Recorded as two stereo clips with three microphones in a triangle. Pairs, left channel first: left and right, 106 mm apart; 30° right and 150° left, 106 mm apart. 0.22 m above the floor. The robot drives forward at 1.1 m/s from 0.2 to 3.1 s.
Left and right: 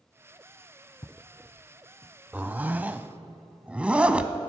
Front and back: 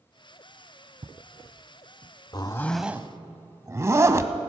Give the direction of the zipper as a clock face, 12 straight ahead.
1 o'clock.